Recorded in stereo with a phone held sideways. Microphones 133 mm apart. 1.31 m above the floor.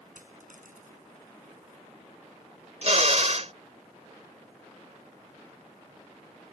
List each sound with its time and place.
0.1 s a dropped coin: 85° right
2.8 s a drill: 55° right (ahead or behind)